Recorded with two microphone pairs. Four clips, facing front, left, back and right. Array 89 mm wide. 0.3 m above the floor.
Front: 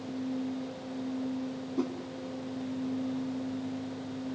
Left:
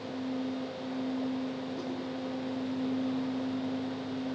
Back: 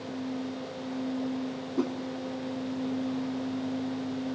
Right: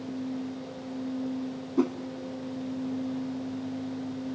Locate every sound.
1.8 s a whoosh: 100° right, 0.7 m